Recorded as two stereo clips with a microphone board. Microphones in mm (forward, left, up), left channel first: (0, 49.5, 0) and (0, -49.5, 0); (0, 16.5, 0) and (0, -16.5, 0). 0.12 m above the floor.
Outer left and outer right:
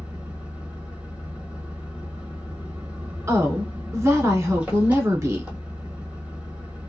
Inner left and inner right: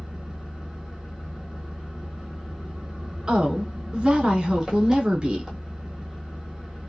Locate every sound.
0.0 s an engine running: 15° right (ahead or behind), 1.1 m
3.3 s a woman speaking: 30° right (ahead or behind), 1.2 m